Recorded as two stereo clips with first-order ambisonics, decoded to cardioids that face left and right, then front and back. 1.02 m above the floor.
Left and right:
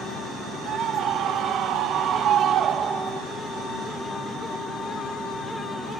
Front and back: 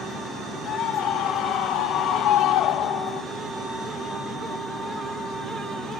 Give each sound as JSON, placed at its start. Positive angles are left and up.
{"t": 0.7, "sound": "a scream", "azimuth_deg": -45}